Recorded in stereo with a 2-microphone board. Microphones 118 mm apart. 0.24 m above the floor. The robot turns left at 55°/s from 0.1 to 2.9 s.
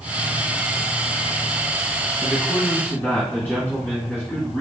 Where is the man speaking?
165° right, 2.5 m; by 4.6 s 155° left, 2.5 m.